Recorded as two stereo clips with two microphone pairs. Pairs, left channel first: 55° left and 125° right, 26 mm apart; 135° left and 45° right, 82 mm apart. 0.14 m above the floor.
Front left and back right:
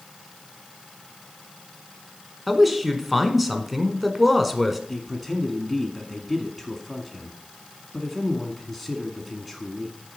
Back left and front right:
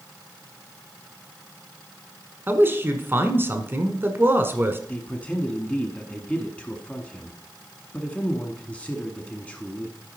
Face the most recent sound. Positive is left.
turn(degrees=130)